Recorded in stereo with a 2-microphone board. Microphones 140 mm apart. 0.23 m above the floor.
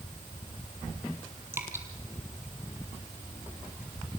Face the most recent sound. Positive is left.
turn(degrees=-15)  # may be behind; listen again after turning